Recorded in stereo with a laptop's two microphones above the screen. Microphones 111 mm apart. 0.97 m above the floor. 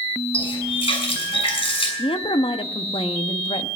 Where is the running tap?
60° left (ahead or behind), 6.5 m.